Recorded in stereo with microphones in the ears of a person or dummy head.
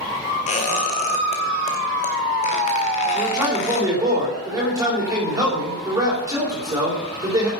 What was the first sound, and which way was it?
A squeak, 30° left (ahead or behind).